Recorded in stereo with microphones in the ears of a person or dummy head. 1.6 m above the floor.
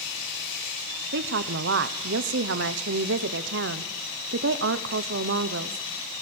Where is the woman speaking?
65° right (ahead or behind), 1.0 m.